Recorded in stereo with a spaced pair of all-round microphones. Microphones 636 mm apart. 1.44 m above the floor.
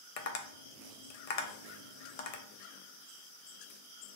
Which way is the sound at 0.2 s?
65° left (ahead or behind).